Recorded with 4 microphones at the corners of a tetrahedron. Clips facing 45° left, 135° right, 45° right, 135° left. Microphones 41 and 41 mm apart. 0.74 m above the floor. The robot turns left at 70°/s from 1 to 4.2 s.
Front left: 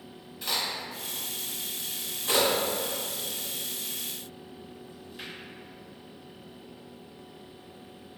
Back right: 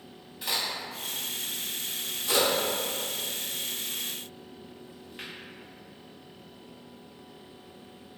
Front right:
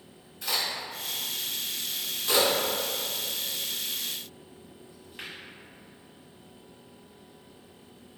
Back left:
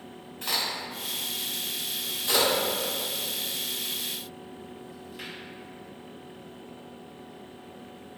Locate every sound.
0.4 s a crack: 145° left, 1.5 m; by 5.3 s 80° right, 1.5 m